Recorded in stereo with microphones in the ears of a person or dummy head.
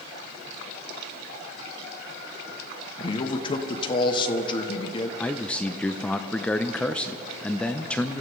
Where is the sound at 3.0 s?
30° left (ahead or behind), 1.1 m.